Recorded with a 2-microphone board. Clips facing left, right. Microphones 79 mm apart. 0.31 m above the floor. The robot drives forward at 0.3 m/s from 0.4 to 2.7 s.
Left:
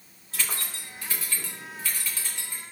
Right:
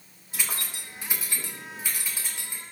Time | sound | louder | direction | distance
0.3 | keys jangling | even | 15° right (ahead or behind) | 0.8 m